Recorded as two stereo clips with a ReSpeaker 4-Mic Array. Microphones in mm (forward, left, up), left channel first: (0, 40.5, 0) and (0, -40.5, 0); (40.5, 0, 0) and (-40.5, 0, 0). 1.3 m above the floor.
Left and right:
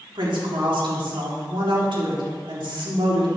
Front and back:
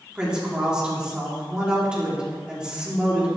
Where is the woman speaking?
100° right, 3.5 m.